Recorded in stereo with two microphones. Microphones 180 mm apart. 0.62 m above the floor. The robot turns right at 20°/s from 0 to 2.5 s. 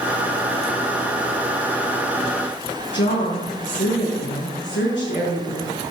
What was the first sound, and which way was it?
A woman speaking, 85° left.